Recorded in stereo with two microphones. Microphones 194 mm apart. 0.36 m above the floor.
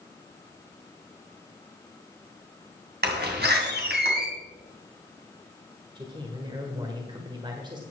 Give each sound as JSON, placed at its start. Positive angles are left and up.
{"t": 3.0, "sound": "a door slam", "side_deg": -60, "distance_m": 2.5}
{"t": 6.0, "sound": "a man speaking", "side_deg": -25, "distance_m": 1.5}